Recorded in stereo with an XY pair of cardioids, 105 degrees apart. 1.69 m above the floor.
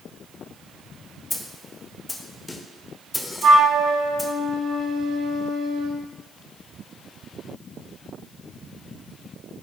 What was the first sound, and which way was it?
A snare drum, 20° left.